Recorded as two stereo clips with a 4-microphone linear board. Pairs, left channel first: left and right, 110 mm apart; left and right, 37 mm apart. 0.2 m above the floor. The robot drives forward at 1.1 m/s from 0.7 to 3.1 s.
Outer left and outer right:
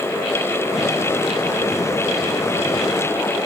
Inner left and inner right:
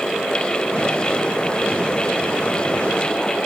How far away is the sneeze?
No sneeze in this recording.